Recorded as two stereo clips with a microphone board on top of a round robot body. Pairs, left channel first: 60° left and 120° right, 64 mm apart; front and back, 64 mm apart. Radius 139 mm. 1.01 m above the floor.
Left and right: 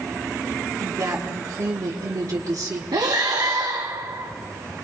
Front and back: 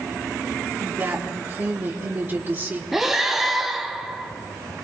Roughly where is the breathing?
Right.